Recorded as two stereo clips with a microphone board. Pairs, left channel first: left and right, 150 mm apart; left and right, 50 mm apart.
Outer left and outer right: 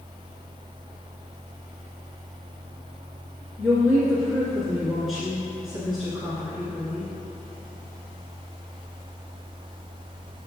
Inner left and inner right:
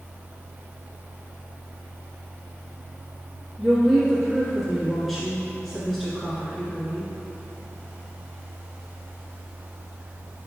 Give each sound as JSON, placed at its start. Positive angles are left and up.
{"t": 3.6, "sound": "a woman speaking", "side_deg": 0, "distance_m": 1.4}